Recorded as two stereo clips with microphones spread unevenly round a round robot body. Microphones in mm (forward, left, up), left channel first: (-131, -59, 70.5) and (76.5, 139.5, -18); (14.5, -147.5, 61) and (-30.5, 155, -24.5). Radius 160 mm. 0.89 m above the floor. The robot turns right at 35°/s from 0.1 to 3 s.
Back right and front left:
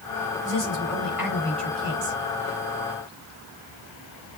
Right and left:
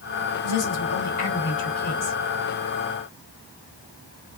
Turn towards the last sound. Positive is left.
turn(degrees=25)